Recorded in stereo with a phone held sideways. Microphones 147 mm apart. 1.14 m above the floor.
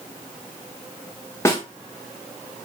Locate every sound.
1.4 s a snare drum: 20° left (ahead or behind), 1.0 m